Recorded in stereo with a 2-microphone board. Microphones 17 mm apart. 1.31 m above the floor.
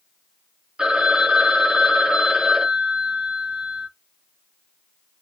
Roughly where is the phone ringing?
Right.